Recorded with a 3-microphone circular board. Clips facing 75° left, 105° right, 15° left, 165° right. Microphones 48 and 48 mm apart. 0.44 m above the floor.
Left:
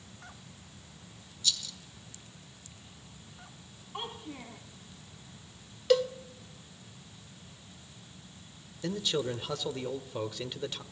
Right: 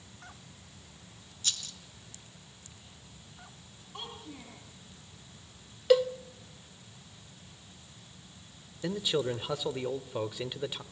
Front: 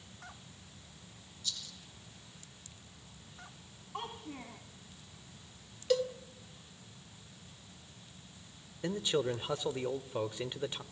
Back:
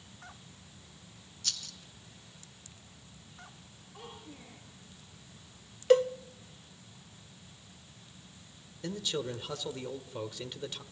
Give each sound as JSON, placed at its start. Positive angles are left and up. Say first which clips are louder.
{"t": 1.4, "sound": "a rattle", "louder": "left 3 dB, back 2 dB", "azimuth_deg": -150, "distance_m": 2.0}
{"t": 3.9, "sound": "a child speaking", "louder": "left 4 dB, front 6 dB", "azimuth_deg": 10, "distance_m": 3.0}
{"t": 5.9, "sound": "a cowbell", "louder": "right 2 dB, back 7 dB", "azimuth_deg": -175, "distance_m": 1.0}
{"t": 8.8, "sound": "a man speaking", "louder": "right 1 dB, front 3 dB", "azimuth_deg": -35, "distance_m": 1.4}